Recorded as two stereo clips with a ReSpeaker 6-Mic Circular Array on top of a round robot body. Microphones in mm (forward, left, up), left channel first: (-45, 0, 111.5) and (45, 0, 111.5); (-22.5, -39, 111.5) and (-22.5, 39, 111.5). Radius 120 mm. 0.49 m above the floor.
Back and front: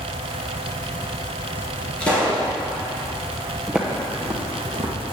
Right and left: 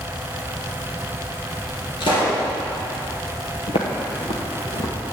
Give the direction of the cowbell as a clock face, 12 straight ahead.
No cowbell in this recording.